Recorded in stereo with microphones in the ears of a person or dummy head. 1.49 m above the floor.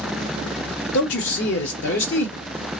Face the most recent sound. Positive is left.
turn(degrees=65)  # may be behind; listen again after turning